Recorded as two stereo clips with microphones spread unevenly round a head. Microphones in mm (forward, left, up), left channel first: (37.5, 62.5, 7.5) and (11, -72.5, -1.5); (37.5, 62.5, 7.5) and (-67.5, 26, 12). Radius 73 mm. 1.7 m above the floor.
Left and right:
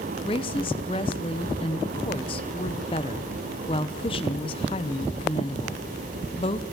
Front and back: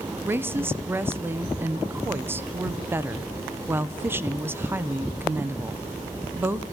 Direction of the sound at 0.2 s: 130° left.